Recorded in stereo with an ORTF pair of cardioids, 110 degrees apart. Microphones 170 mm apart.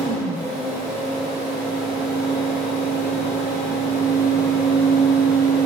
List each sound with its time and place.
0.0 s a fan: 40° right, 1.0 m